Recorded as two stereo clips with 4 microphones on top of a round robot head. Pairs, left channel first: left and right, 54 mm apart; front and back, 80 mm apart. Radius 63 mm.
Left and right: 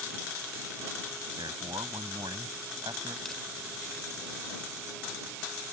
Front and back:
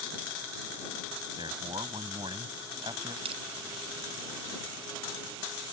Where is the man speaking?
125° right.